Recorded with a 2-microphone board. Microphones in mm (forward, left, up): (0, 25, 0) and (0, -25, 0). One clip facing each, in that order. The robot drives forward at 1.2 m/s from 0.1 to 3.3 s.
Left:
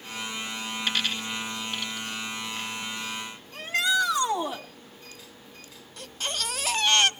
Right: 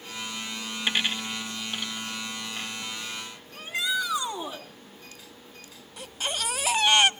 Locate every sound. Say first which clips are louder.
0.9 s a dropped coin: right 2 dB; 20° right (ahead or behind), 0.6 m; by 3.4 s 5° right (ahead or behind), 3 m
3.5 s a shout: left 4 dB; 75° left (ahead or behind), 4 m
6.0 s a baby crying: right 1 dB; 10° right (ahead or behind), 0.5 m